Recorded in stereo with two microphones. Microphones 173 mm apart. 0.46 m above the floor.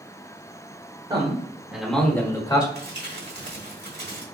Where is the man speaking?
30° right (ahead or behind), 1.3 m; by 2.6 s 25° left (ahead or behind), 1.4 m.